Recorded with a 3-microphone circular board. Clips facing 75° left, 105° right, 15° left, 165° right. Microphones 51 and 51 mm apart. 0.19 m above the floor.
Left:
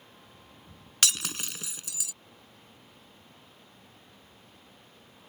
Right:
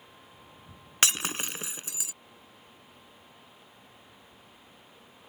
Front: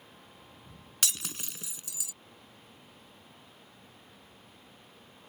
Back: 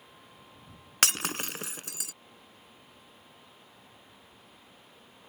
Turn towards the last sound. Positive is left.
turn(degrees=-160)